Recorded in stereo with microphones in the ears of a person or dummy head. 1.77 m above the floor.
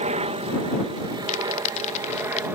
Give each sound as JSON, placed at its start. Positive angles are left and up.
{"t": 0.0, "sound": "a helicopter", "side_deg": -35}
{"t": 1.3, "sound": "crumpling", "side_deg": 35}